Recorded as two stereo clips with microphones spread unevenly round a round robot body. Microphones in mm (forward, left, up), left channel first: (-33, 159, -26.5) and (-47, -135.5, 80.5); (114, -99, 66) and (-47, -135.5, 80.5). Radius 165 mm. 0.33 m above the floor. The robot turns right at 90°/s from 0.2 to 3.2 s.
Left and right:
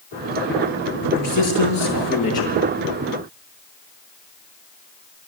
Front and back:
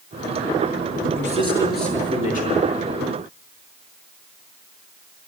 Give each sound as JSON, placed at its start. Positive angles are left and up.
{"t": 1.0, "sound": "a man speaking", "azimuth_deg": 40, "distance_m": 6.0}